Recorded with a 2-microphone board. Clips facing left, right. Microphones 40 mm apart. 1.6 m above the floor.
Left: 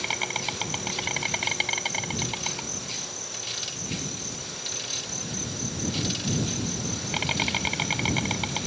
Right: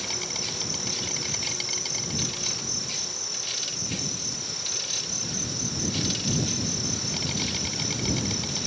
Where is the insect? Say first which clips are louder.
Left 6 dB; 45° left (ahead or behind).